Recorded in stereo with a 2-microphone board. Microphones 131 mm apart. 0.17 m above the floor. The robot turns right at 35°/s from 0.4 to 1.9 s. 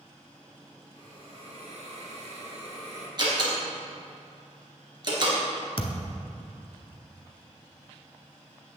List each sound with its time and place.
0.9 s a hiss: 135° right, 2.5 m; by 3.1 s 100° right, 2.5 m
3.2 s a door slam: 35° right (ahead or behind), 2.5 m
5.8 s a thud: 45° left (ahead or behind), 0.9 m